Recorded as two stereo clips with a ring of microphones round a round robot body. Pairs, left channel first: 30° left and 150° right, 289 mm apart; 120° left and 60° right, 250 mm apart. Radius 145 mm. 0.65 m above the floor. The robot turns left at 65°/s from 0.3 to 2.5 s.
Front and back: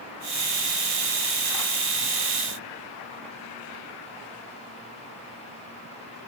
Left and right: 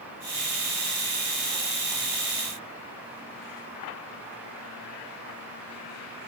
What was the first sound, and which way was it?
Only background noise.